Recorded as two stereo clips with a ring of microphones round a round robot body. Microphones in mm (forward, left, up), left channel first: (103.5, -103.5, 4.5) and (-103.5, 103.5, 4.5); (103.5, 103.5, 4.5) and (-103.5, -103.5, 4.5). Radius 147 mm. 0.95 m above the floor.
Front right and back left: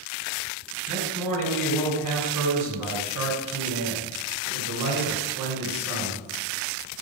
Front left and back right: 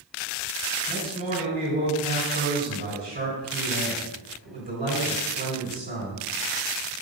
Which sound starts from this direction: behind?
A man speaking, at 0.9 s.